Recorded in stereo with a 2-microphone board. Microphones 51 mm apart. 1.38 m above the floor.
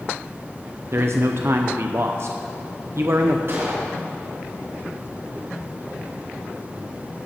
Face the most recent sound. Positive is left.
turn(degrees=-55)  # may be behind; listen again after turning